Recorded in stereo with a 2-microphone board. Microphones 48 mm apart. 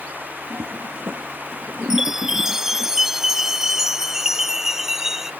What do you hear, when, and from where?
0.5 s a toilet flushing: 60° right (ahead or behind)
1.9 s a chime: 10° right (ahead or behind)